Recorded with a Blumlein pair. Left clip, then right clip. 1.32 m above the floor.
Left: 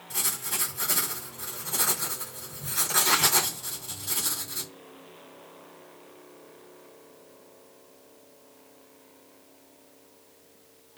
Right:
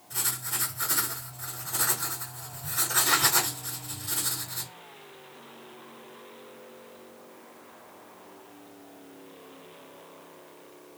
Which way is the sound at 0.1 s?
65° left.